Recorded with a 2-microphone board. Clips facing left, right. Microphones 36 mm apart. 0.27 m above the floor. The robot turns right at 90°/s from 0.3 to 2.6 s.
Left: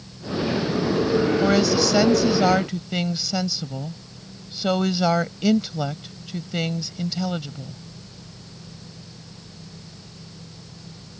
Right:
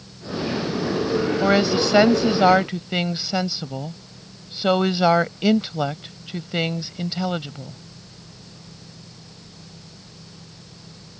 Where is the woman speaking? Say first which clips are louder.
Even; 150° right; by 7.8 s 45° right.